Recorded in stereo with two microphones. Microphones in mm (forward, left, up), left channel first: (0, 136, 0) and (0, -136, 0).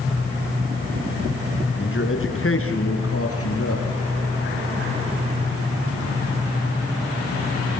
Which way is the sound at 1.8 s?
45° left (ahead or behind).